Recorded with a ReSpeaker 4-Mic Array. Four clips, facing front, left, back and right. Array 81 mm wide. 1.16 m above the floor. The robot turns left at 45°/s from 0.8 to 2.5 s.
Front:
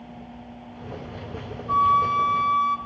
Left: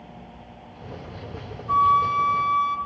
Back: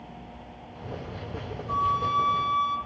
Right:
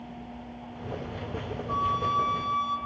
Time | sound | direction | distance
1.7 | a flute | 65° left | 0.8 m